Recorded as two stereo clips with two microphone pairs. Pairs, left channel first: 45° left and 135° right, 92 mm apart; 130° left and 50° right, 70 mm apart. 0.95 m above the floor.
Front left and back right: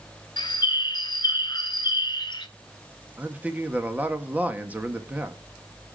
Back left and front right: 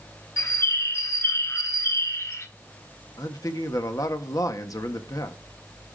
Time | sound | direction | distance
0.4 | a bird | 85° left | 1.3 m
3.2 | a man speaking | 155° left | 1.6 m